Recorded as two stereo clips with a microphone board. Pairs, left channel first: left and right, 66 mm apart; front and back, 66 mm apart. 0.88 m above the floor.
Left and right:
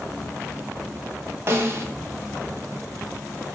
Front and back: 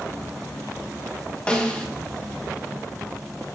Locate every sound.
1.5 s a snare drum: 65° right, 1.0 m